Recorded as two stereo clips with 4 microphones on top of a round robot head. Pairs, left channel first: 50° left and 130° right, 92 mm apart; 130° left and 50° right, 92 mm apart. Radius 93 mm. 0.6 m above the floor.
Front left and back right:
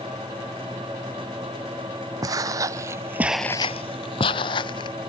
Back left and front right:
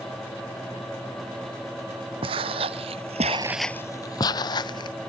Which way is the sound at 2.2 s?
80° right.